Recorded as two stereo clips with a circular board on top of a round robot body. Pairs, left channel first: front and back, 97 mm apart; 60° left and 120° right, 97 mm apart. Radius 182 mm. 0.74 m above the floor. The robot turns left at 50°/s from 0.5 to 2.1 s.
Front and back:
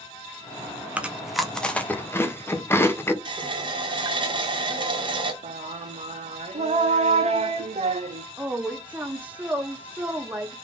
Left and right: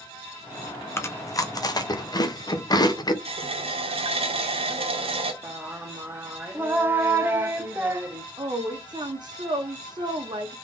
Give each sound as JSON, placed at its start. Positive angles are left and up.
{"t": 1.0, "sound": "chewing", "azimuth_deg": 110, "distance_m": 1.2}
{"t": 3.2, "sound": "a running tap", "azimuth_deg": -140, "distance_m": 0.9}
{"t": 5.4, "sound": "singing", "azimuth_deg": 170, "distance_m": 0.5}
{"t": 8.4, "sound": "a woman speaking", "azimuth_deg": -110, "distance_m": 1.2}